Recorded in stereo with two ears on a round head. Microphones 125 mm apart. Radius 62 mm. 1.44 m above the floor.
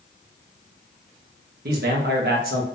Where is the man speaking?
75° right (ahead or behind), 1.4 m.